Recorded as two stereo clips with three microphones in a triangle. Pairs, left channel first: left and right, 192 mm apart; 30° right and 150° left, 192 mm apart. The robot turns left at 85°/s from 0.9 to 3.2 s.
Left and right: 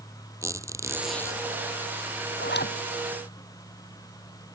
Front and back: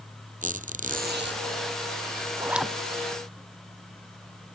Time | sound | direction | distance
0.4 | a squeak | 165° right | ?
2.4 | a zipper | 80° left | ?